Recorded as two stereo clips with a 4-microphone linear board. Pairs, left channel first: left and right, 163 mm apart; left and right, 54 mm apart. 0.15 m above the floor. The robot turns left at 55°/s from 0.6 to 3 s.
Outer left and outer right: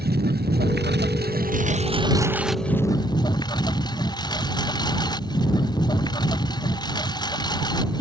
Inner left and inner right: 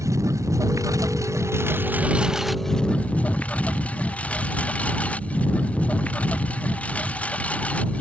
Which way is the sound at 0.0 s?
70° right.